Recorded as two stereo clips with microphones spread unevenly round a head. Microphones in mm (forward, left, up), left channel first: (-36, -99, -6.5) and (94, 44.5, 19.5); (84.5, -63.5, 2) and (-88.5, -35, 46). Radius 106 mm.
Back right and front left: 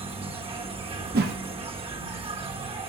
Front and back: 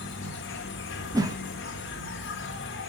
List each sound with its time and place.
0.0 s an insect: 15° right, 1.5 m
1.1 s a whoosh: 90° left, 0.8 m